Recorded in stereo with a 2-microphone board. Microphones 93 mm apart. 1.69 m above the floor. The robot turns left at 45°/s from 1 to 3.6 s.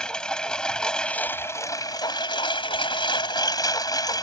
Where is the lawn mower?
170° left; by 4.2 s 50° left.